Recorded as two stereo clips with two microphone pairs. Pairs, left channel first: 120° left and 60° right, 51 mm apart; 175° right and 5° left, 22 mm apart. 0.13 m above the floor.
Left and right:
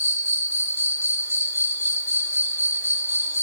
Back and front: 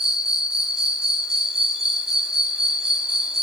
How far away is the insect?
About 0.9 m.